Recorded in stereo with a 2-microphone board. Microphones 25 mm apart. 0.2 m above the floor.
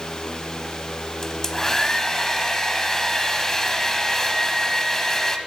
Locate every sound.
1.2 s a hair dryer: 20° left (ahead or behind), 0.6 m